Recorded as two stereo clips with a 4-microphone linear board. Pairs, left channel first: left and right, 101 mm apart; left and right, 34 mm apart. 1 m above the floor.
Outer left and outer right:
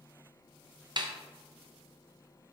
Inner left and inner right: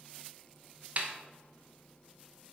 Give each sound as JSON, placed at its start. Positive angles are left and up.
{"t": 1.0, "sound": "a snare drum", "side_deg": -45, "distance_m": 0.7}